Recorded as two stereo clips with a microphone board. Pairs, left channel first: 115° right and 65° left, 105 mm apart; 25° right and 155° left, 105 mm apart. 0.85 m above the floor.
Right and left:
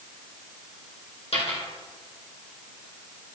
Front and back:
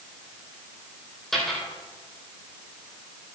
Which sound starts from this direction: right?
A dropped coin, at 1.3 s.